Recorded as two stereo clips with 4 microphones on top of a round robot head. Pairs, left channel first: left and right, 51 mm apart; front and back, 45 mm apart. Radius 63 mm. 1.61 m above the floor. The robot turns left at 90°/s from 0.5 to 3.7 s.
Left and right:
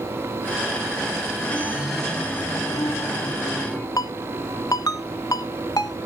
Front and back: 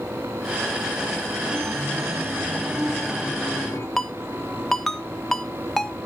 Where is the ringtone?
75° left, 0.5 m.